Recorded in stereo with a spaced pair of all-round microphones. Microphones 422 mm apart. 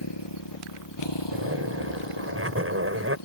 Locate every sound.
0.0 s a motorcycle: 75° left (ahead or behind); by 3.3 s 80° left
1.3 s a zipper: 30° right (ahead or behind)